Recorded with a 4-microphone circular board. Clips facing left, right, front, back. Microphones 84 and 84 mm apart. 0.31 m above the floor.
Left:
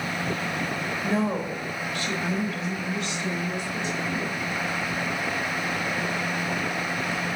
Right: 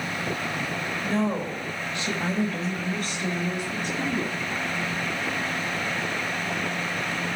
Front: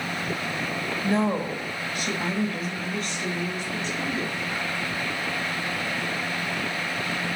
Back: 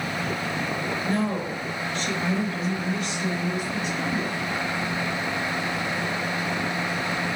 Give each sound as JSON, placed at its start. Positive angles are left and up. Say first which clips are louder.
{"t": 1.0, "sound": "a woman speaking", "louder": "even, front 4 dB", "azimuth_deg": 30, "distance_m": 1.0}